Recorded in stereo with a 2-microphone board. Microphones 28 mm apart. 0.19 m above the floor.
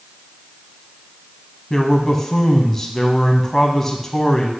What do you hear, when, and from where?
1.7 s a man speaking: 15° left (ahead or behind), 1.0 m